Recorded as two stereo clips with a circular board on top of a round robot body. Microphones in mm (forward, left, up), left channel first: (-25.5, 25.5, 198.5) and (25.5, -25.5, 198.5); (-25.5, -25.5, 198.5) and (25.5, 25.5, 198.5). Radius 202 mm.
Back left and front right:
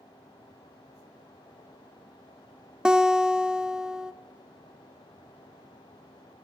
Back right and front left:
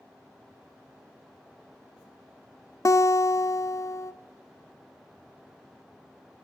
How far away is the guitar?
About 1.0 m.